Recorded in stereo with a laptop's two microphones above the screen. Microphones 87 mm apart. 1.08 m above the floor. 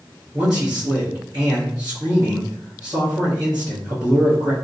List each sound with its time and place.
0.3 s a man speaking: 50° right (ahead or behind), 1.1 m